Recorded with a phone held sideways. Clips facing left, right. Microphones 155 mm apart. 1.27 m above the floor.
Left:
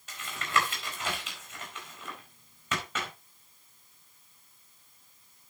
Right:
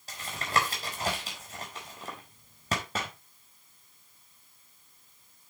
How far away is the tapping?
About 4.5 m.